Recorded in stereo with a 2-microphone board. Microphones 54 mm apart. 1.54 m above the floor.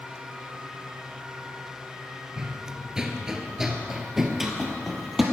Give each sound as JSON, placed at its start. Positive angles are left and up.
{"t": 2.4, "sound": "running footsteps", "side_deg": -10, "distance_m": 1.6}